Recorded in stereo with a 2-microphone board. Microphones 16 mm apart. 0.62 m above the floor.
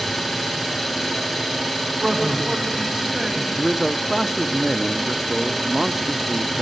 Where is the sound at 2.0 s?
55° right (ahead or behind), 4.5 m.